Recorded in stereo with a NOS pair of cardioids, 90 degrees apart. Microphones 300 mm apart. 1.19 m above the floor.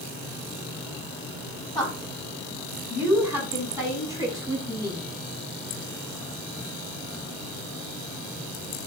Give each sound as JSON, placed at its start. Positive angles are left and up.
{"t": 1.8, "sound": "a woman speaking", "azimuth_deg": 0, "distance_m": 7.0}